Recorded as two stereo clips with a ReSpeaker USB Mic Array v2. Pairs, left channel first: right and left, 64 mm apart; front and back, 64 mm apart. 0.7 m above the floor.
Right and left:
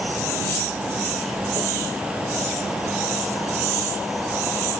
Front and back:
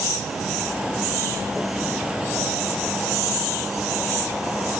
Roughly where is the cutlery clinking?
No cutlery clinking in this recording.